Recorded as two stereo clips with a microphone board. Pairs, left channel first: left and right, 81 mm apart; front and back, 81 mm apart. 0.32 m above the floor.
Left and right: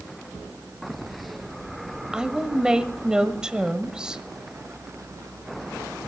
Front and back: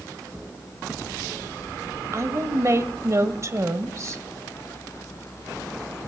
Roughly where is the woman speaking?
Behind.